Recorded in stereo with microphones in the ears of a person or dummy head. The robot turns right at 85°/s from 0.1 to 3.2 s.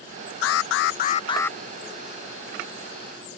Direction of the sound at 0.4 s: 80° left.